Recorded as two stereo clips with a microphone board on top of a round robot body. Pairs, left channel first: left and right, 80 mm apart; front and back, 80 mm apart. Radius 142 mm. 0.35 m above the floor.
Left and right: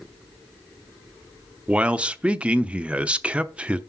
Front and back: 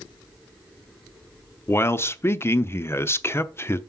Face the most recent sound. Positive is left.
turn(degrees=-25)